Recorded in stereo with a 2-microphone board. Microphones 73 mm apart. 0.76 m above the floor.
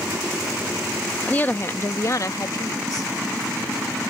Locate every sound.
1.2 s a woman speaking: 15° left (ahead or behind); by 3.1 s 60° left (ahead or behind)